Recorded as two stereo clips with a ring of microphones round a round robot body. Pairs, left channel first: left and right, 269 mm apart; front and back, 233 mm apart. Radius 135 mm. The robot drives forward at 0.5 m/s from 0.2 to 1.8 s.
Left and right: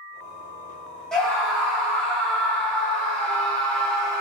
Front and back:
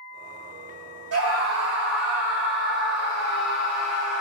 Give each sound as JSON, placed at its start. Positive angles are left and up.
{"t": 1.1, "sound": "a scream", "azimuth_deg": 175, "distance_m": 2.5}